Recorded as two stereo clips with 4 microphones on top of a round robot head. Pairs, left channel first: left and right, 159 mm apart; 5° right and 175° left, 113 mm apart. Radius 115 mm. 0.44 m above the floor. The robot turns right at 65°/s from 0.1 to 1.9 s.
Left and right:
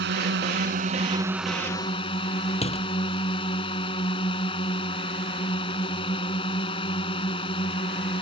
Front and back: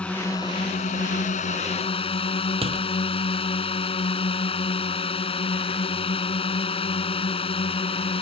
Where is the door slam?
140° left.